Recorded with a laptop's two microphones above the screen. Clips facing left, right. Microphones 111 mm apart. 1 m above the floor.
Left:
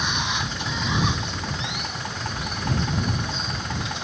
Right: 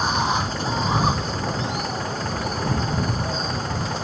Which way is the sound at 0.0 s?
40° right (ahead or behind).